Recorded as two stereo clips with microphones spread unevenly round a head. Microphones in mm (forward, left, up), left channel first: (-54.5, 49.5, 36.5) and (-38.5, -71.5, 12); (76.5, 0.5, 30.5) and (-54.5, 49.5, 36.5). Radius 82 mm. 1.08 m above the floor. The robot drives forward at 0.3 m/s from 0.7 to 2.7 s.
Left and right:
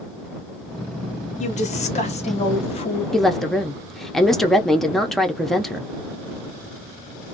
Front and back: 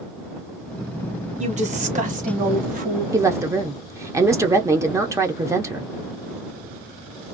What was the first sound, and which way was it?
A woman speaking, 125° left.